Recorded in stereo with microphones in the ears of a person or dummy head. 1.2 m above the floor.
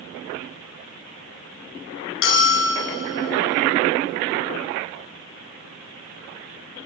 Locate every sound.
2.2 s a bell: 70° left (ahead or behind), 6.5 m